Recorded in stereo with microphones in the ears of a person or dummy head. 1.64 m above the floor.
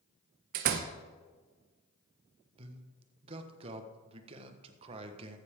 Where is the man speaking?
30° right (ahead or behind), 1.4 m.